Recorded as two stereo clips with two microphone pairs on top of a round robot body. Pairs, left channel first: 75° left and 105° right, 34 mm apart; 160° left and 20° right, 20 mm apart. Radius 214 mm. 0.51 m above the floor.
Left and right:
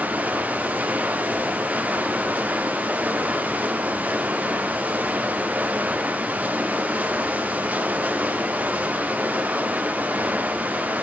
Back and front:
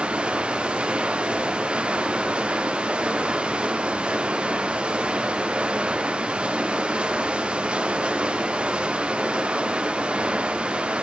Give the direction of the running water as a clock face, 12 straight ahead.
2 o'clock.